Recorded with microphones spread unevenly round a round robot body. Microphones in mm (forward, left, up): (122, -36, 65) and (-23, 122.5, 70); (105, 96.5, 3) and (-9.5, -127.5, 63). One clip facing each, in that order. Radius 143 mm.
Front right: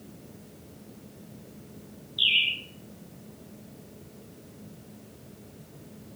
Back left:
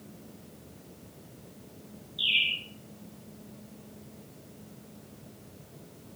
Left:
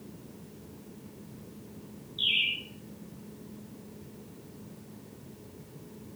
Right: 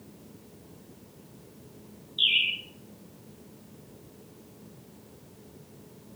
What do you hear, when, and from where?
2.2 s a bird: 75° right, 9.5 m